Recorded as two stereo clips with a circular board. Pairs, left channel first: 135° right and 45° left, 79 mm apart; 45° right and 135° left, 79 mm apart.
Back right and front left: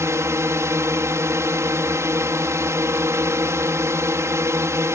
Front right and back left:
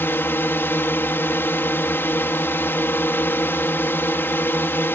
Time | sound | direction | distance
0.0 | a drone | 10° left | ?